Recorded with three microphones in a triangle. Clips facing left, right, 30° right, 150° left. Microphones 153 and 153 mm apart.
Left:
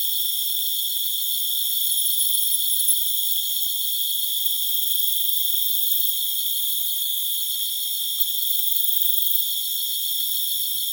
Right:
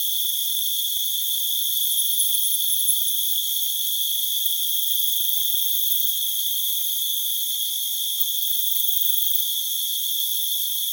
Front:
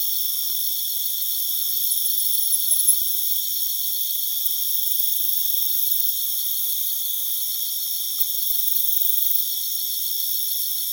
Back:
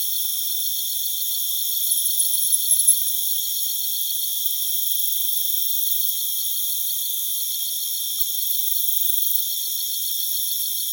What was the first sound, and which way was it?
An insect, 140° right.